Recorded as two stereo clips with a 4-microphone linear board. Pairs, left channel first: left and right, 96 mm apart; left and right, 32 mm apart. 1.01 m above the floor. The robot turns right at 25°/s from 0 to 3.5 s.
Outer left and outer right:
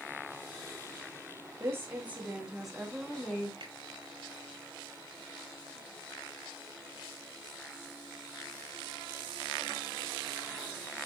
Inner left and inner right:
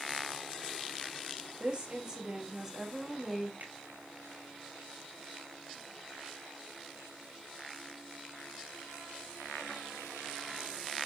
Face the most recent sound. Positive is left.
turn(degrees=-70)  # may be behind; listen again after turning